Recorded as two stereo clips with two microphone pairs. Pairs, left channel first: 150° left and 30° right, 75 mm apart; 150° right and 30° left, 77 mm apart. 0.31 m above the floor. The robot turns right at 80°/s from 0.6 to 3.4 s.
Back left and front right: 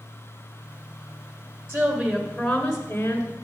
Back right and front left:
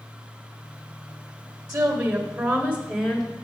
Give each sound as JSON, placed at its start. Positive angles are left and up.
{"t": 1.7, "sound": "a woman speaking", "azimuth_deg": 0, "distance_m": 1.3}